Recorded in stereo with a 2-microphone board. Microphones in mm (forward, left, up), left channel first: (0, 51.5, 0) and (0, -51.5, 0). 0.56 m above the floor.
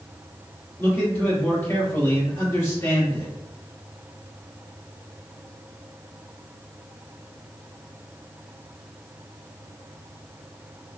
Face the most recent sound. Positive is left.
turn(degrees=25)  # may be behind; listen again after turning